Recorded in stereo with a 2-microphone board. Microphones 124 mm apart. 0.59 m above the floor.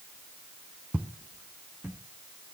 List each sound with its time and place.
0.9 s footsteps: 10° right (ahead or behind), 1.4 m; by 2.0 s 15° right (ahead or behind), 2 m